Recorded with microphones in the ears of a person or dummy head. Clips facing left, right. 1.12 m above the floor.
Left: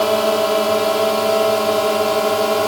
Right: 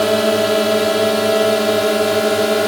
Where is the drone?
25° right (ahead or behind).